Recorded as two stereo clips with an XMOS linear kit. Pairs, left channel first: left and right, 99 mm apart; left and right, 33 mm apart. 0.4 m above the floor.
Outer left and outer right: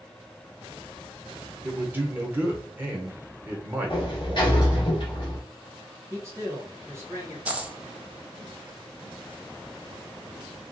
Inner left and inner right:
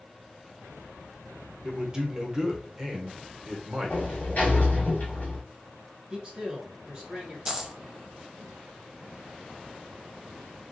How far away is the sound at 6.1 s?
About 1.3 m.